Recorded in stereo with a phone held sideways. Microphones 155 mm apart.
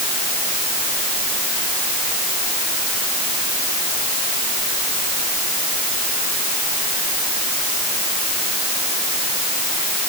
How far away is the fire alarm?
I don't hear a fire alarm.